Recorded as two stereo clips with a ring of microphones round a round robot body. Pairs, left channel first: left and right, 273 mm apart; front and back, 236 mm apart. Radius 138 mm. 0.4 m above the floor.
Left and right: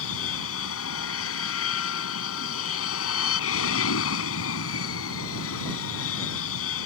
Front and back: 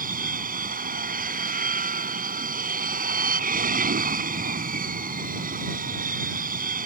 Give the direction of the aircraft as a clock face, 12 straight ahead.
8 o'clock.